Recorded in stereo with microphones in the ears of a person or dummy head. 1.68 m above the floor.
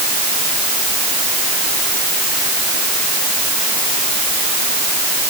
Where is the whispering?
No whispering in this recording.